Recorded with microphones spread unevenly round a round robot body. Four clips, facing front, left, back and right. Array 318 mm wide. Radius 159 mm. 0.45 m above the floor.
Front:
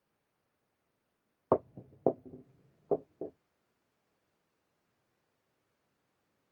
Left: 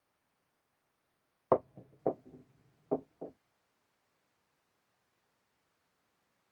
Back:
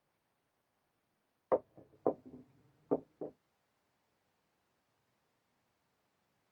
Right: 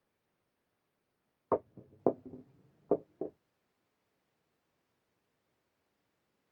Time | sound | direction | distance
1.5 | footsteps | 20° left | 0.7 m